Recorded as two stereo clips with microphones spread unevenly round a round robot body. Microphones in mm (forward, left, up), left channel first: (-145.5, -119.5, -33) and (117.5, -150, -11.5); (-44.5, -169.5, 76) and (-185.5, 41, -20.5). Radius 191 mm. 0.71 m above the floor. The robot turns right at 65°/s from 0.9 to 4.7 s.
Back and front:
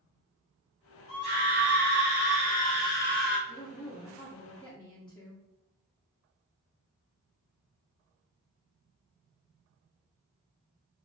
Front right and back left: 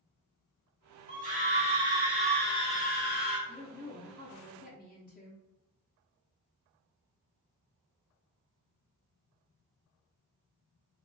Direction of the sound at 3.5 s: 165° left.